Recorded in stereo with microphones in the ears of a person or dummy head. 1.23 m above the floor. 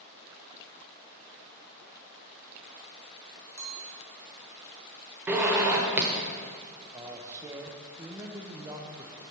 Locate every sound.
3.6 s a clink: 15° right (ahead or behind), 0.8 m
5.3 s a zipper: 15° right (ahead or behind), 1.0 m
6.9 s a man speaking: 20° right (ahead or behind), 0.6 m